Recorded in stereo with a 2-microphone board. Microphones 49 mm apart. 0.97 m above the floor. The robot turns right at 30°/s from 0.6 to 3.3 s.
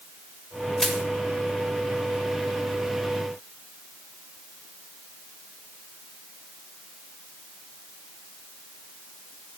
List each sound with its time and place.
0.8 s crushing: 5° left (ahead or behind), 1.7 m; by 1.0 s centre (ahead or behind), 1.7 m